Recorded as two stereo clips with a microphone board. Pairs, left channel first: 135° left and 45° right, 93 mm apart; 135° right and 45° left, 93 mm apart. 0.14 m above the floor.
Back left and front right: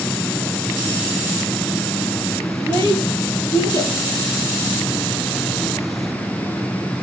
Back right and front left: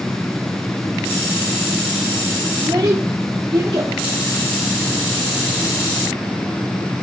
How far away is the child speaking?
About 7 m.